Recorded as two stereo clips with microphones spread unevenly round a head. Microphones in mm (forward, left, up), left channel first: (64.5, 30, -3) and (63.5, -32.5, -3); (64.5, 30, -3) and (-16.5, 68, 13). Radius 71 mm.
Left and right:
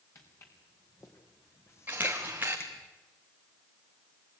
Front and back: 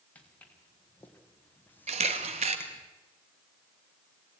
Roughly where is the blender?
No blender in this recording.